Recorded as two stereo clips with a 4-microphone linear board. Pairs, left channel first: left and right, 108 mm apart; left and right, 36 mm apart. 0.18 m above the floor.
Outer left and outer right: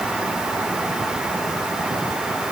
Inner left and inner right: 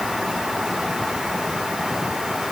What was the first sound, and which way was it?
Only background noise.